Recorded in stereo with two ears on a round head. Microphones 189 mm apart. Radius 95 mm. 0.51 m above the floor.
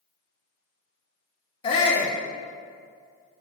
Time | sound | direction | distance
1.6 | a shout | 25° left (ahead or behind) | 1.0 m